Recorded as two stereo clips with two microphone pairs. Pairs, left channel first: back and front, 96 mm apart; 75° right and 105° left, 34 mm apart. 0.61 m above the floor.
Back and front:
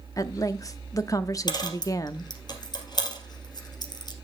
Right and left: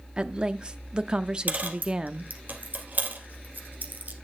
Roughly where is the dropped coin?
Behind left.